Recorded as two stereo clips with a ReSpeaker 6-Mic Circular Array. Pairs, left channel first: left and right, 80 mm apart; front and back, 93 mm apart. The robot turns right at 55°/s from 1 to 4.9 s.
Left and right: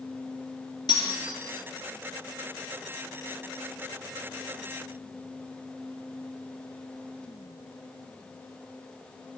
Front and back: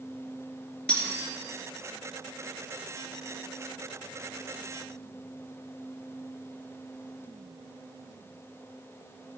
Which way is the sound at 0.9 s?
75° left.